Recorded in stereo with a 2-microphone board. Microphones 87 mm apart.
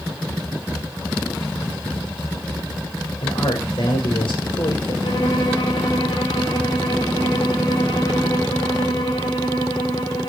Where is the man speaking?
65° left (ahead or behind), 4 m; by 4.9 s 80° left, 3.5 m.